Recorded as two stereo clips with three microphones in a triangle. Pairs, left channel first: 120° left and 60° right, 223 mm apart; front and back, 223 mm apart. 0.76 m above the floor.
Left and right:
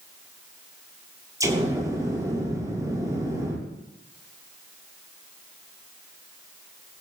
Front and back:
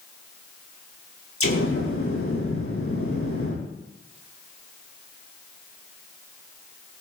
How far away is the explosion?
About 8 m.